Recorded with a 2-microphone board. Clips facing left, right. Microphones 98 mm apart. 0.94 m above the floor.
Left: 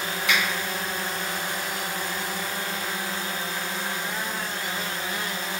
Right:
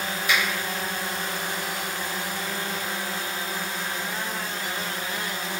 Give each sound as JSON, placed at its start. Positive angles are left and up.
{"t": 0.3, "sound": "a finger snap", "side_deg": 80, "distance_m": 1.6}